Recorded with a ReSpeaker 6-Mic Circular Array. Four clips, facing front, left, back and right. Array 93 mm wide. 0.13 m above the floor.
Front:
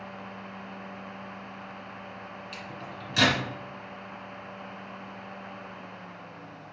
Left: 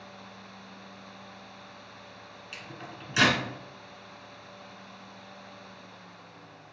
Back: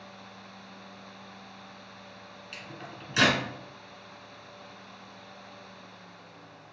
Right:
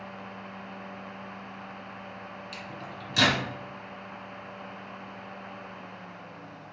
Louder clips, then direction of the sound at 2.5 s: Right 3 dB, front 4 dB; 115° left.